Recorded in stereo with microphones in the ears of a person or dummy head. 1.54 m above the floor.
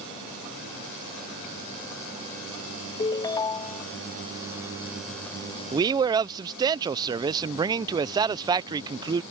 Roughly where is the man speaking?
Right.